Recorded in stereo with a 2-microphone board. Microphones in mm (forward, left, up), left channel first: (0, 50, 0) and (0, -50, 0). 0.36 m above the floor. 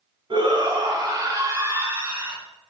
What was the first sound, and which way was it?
A shout, 50° right (ahead or behind).